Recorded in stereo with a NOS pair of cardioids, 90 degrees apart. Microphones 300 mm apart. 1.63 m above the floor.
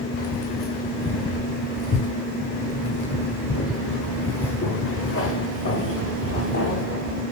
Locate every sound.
0.2 s keys jangling: 45° left, 4.5 m